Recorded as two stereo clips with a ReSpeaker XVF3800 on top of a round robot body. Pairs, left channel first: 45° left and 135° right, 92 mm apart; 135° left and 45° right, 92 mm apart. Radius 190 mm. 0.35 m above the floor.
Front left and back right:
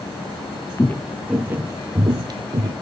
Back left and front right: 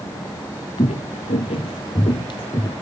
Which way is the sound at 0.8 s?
110° left.